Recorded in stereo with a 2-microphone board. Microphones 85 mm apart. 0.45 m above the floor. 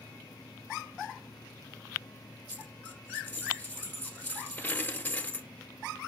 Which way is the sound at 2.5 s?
20° left (ahead or behind).